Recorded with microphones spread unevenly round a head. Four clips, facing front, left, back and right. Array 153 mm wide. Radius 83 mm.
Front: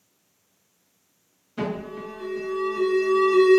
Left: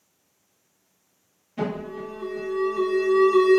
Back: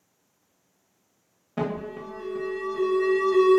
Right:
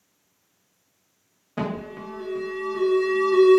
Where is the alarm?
140° right, 0.8 m.